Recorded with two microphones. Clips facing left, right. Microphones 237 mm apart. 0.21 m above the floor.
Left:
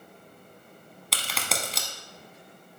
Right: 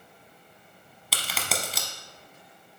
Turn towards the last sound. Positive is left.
turn(degrees=0)  # may be behind; listen again after turning